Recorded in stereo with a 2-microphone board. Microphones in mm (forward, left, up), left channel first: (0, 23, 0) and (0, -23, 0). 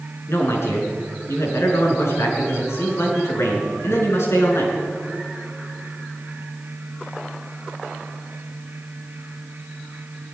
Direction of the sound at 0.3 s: 80° left.